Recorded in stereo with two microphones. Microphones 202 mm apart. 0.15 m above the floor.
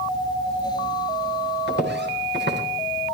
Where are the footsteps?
60° right (ahead or behind), 4.5 m.